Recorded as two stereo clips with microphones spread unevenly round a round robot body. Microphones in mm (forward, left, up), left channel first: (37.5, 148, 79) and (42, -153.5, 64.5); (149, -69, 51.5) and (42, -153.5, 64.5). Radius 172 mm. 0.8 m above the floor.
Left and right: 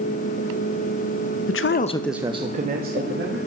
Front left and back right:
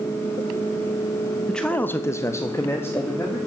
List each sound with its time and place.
1.5 s a man speaking: 120° left, 0.9 m; by 3.4 s 35° right, 2 m